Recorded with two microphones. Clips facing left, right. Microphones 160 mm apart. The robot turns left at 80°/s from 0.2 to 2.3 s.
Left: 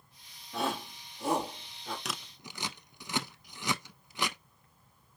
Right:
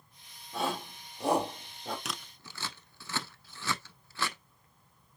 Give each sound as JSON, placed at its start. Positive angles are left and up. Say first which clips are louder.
{"t": 0.5, "sound": "a shout", "louder": "even", "side_deg": -5, "distance_m": 1.8}
{"t": 2.0, "sound": "scissors", "louder": "left 1 dB", "side_deg": 0, "distance_m": 0.5}